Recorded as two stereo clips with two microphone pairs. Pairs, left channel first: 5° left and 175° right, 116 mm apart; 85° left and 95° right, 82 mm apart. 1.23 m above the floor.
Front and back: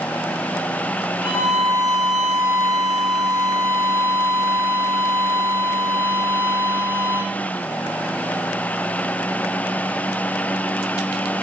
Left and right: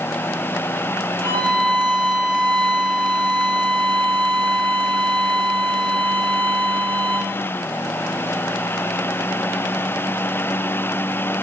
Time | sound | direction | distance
1.2 | a violin | 100° right | 3.5 m